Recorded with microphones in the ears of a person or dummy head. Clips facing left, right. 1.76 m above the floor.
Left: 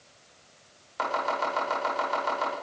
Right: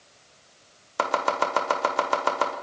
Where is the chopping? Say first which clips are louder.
Right 4 dB; 70° right (ahead or behind), 1.6 m.